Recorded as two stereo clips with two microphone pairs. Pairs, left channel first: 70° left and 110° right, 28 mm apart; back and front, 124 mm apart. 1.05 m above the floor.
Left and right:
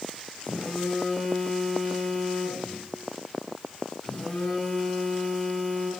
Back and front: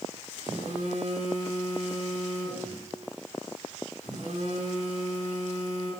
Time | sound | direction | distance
0.4 | a phone buzzing | 10° left | 6 m